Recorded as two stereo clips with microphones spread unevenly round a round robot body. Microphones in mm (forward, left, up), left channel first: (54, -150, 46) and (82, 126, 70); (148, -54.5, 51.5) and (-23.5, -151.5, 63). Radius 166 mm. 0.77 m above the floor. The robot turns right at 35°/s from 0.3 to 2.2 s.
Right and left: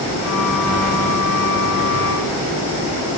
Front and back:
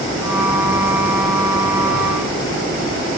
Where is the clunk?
I don't hear a clunk.